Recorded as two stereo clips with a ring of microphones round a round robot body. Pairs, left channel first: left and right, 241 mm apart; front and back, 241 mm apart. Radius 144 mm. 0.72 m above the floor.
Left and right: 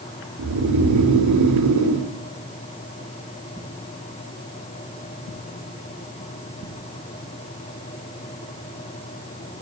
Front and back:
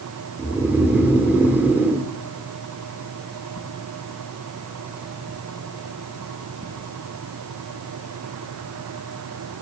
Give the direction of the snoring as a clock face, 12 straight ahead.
3 o'clock.